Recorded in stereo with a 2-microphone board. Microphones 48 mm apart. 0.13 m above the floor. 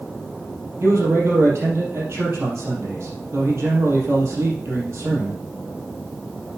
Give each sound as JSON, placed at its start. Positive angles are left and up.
{"t": 0.8, "sound": "a man speaking", "side_deg": -70, "distance_m": 4.0}